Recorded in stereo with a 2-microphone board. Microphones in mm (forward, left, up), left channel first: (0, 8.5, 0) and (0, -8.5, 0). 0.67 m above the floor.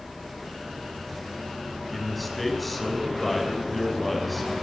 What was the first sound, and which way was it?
A man speaking, 10° left (ahead or behind).